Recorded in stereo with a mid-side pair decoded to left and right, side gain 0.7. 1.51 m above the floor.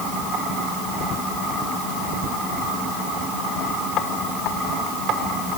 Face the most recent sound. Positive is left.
No sound to turn to.